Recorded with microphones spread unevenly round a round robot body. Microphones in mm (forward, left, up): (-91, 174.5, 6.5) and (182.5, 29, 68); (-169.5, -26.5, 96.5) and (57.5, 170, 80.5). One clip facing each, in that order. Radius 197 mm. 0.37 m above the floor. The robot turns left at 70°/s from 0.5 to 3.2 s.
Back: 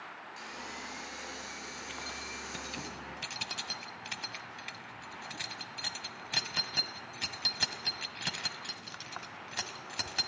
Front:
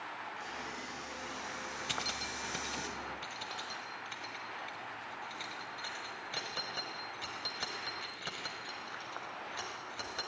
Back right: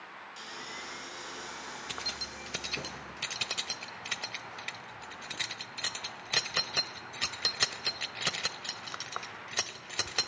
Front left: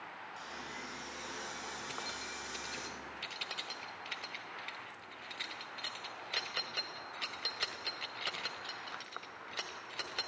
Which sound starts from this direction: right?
Keys jangling, at 1.9 s.